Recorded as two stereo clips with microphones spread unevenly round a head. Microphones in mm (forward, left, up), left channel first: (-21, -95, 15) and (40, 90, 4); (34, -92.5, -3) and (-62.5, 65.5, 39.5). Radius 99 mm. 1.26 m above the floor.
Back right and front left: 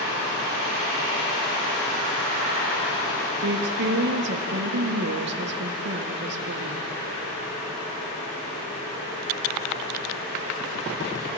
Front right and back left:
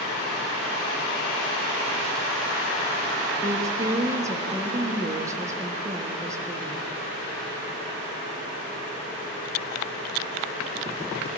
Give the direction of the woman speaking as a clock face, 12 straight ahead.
11 o'clock.